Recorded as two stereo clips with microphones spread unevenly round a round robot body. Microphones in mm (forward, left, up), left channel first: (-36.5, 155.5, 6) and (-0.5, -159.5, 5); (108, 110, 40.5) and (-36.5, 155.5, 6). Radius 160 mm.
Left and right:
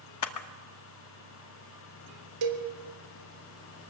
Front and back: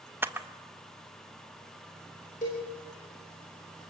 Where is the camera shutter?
100° left, 1.2 m.